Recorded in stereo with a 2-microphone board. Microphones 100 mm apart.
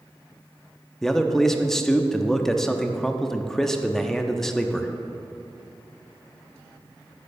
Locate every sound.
1.0 s a man speaking: 5° left (ahead or behind), 0.6 m